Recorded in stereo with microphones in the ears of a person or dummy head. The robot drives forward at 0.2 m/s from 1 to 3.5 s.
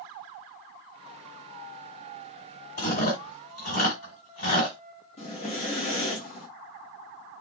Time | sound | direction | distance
2.8 | chewing | 55° left (ahead or behind) | 1.9 m
5.2 | breathing | 40° left (ahead or behind) | 0.9 m